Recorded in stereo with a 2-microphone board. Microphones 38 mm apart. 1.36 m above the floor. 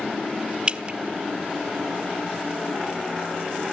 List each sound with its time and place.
0.7 s dripping: 30° right (ahead or behind), 1.1 m